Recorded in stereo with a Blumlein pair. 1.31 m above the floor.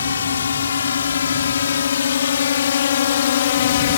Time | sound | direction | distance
0.0 | a drone | 70° left | ?